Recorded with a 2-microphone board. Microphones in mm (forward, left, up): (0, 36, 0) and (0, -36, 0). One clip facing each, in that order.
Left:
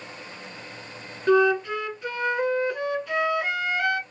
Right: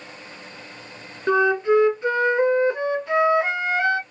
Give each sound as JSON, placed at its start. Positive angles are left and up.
{"t": 1.3, "sound": "a flute", "side_deg": -25, "distance_m": 0.6}